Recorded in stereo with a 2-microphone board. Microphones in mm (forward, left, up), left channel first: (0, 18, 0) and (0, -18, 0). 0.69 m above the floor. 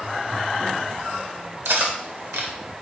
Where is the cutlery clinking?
70° right (ahead or behind), 1.5 m.